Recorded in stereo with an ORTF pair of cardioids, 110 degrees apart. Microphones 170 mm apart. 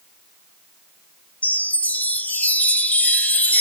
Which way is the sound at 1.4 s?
10° left.